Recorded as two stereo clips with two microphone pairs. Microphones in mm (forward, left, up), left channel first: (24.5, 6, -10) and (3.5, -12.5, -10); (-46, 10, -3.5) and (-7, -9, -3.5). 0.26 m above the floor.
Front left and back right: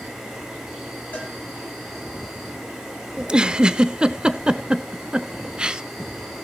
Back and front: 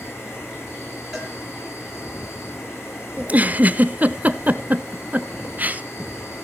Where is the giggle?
80° right, 0.6 m.